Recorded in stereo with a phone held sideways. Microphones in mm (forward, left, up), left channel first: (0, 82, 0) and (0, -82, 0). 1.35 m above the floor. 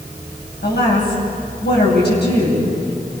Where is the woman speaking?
80° left, 10 m.